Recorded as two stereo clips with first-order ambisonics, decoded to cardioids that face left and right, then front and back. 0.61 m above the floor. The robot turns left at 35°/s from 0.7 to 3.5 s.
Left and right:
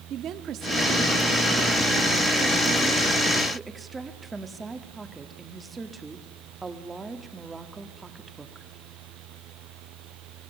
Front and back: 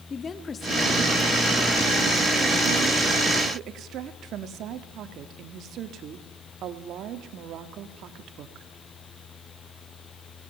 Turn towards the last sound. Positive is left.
turn(degrees=-160)